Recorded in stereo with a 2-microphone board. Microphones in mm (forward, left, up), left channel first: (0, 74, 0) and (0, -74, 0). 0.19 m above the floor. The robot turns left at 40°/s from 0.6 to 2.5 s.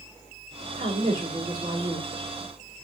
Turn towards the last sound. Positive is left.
turn(degrees=175)